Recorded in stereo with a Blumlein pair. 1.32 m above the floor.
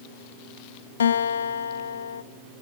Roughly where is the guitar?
Ahead left.